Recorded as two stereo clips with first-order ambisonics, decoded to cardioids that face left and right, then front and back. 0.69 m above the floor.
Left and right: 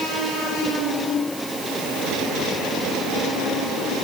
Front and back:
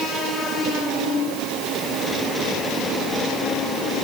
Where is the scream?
No scream in this recording.